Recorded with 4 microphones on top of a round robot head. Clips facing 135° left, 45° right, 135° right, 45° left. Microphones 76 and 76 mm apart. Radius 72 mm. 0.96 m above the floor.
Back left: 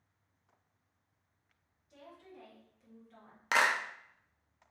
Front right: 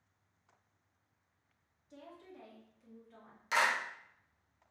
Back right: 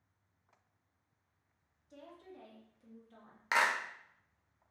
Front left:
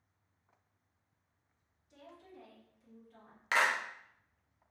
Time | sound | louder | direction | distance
1.9 | a woman speaking | front right 1 dB, back right 2 dB | 100° right | 1.5 m
3.5 | a clap | back left 2 dB, front left 1 dB | 155° left | 0.7 m